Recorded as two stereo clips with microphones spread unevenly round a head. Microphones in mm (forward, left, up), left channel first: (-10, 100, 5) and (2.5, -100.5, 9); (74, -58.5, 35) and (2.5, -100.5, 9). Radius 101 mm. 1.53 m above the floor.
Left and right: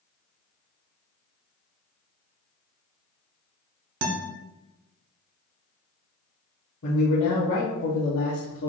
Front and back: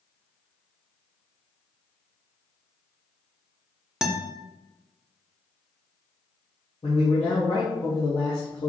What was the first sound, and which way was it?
A guitar, 70° right.